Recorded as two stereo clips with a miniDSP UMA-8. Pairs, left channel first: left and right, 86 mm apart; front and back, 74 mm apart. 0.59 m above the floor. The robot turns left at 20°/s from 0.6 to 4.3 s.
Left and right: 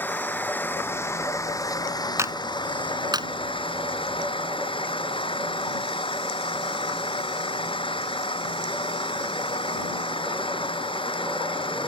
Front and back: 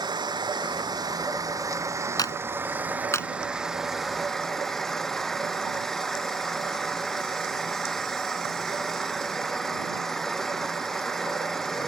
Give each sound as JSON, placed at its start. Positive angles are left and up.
{"t": 0.0, "sound": "an engine running", "azimuth_deg": 160}
{"t": 2.2, "sound": "a clap", "azimuth_deg": -35}